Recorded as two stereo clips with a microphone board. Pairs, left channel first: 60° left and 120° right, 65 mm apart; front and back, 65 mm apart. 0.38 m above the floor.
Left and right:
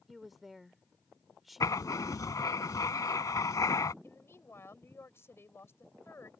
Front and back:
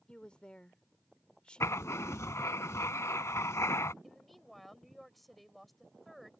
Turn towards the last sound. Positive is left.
turn(degrees=90)